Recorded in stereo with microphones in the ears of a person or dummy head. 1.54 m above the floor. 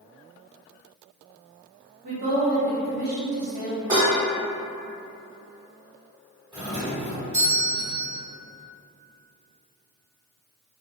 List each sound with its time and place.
2.0 s a woman speaking: 65° right (ahead or behind), 1.0 m
3.9 s dishes clattering: 15° right (ahead or behind), 1.5 m
6.5 s a doorbell: 20° right (ahead or behind), 1.2 m